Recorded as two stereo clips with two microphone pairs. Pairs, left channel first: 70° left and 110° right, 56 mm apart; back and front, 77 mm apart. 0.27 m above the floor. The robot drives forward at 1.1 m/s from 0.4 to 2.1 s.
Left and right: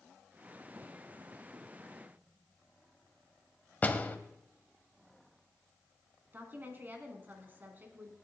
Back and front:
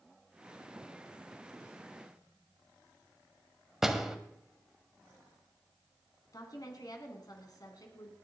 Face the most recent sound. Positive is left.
turn(degrees=-160)